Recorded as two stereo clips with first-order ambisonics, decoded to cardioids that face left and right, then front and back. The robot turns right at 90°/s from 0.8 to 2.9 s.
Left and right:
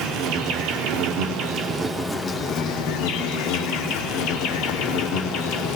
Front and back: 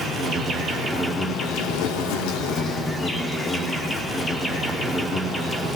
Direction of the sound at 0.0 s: 115° right.